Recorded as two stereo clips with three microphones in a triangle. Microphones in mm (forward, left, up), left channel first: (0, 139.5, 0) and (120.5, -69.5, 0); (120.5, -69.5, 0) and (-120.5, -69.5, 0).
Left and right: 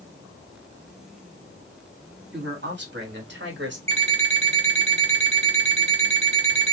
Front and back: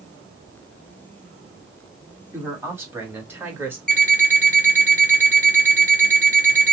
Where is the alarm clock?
125° right, 1.9 m.